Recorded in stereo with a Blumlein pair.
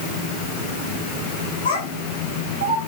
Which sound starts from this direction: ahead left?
A child speaking, at 1.6 s.